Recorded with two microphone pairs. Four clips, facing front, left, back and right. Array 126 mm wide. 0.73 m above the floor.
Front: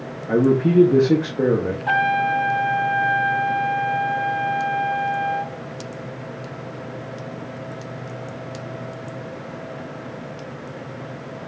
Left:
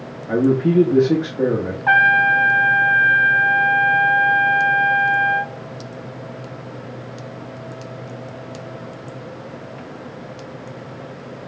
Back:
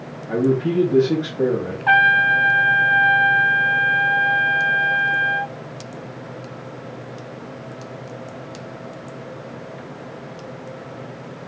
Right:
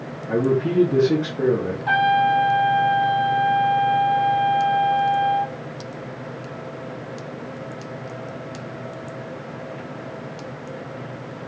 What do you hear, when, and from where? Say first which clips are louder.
0.3 s a man speaking: left 4 dB, front 2 dB; 25° left, 1.0 m
1.9 s a trumpet: left 2 dB, back 4 dB; 130° left, 0.7 m